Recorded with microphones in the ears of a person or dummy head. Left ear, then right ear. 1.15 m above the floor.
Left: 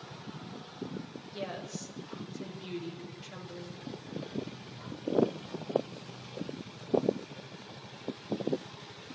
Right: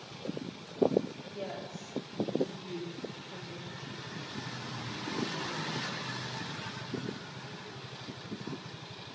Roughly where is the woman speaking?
Left.